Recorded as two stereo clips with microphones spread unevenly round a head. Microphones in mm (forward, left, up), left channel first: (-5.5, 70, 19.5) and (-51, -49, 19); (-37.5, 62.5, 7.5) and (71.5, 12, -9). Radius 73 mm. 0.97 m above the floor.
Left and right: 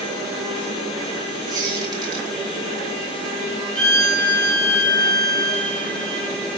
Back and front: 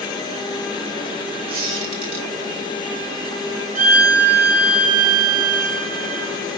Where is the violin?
20° right, 1.0 m.